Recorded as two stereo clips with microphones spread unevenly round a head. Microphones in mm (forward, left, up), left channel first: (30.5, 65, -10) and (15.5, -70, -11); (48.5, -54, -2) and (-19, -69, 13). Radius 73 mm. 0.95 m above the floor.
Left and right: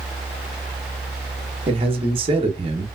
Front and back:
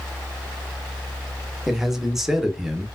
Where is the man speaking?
70° right, 0.8 m.